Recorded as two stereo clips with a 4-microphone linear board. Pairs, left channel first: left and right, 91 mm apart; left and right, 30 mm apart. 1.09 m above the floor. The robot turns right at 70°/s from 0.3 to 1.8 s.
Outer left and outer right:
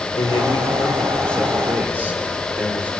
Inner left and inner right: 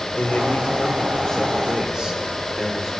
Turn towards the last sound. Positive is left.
turn(degrees=-160)